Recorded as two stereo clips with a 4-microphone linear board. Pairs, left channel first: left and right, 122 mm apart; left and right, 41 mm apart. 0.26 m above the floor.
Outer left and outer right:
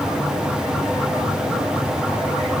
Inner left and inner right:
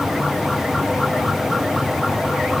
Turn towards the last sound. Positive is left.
No sound to turn to.